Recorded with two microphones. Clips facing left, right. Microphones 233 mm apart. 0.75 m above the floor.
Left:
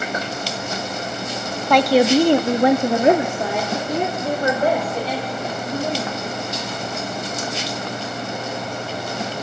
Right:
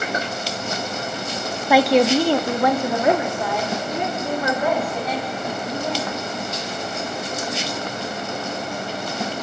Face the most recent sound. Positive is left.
turn(degrees=35)  # may be behind; listen again after turning